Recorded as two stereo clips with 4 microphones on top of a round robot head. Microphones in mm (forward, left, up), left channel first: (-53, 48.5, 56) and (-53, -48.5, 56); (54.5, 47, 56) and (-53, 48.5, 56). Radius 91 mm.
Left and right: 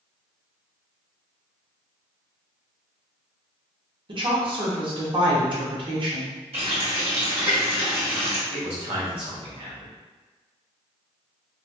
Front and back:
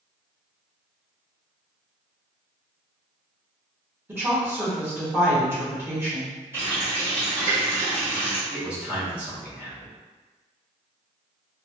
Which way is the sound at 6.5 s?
110° right.